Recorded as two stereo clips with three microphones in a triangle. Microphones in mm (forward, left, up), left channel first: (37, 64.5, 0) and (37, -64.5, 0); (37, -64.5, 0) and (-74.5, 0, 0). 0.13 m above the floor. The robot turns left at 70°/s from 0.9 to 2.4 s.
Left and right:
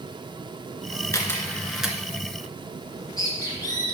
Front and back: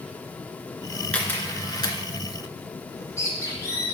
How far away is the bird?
About 3.5 m.